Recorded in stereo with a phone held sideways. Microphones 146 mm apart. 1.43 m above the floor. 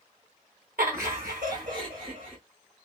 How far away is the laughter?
About 0.8 m.